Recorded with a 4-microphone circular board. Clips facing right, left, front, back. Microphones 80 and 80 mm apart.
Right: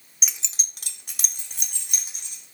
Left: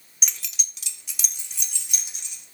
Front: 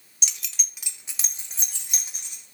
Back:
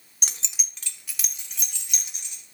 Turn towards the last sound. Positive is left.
turn(degrees=-50)